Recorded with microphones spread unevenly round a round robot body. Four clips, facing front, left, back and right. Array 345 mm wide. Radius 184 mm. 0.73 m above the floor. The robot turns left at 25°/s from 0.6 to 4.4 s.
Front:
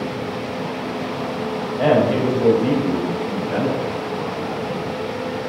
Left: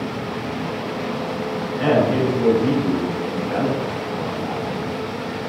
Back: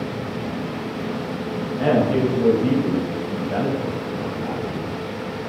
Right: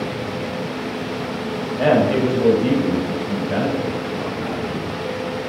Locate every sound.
1.8 s a man speaking: 40° right, 3 m; by 4.8 s 105° right, 3 m